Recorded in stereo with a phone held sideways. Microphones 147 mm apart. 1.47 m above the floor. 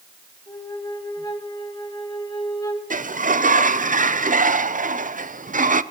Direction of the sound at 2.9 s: 65° right (ahead or behind).